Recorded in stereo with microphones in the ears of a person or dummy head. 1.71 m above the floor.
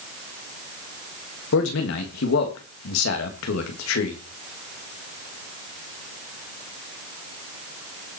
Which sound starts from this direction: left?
A man speaking, at 1.5 s.